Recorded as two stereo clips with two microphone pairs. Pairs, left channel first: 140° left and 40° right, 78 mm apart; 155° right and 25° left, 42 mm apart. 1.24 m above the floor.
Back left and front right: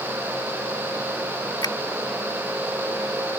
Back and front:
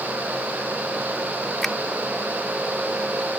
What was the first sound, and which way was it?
A finger snap, 125° left.